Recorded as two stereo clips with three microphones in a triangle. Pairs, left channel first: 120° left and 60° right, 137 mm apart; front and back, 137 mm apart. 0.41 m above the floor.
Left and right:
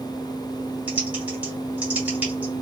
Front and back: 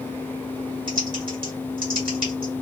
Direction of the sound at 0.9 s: 140° right.